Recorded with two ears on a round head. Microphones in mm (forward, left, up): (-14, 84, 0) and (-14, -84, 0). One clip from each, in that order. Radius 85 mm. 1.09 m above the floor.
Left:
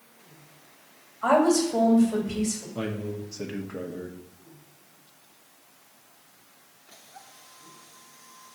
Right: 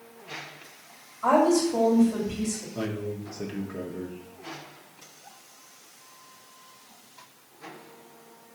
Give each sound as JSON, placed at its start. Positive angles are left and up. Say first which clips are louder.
{"t": 1.2, "sound": "a woman speaking", "louder": "even", "side_deg": 65, "distance_m": 2.5}
{"t": 2.8, "sound": "a man speaking", "louder": "right 2 dB", "side_deg": 20, "distance_m": 0.8}